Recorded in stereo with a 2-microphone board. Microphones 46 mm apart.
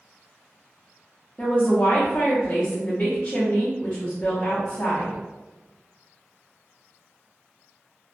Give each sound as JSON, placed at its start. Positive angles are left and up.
{"t": 1.4, "sound": "a woman speaking", "side_deg": 25, "distance_m": 0.6}